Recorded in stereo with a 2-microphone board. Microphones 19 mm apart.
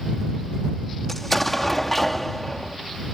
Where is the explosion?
10° left (ahead or behind).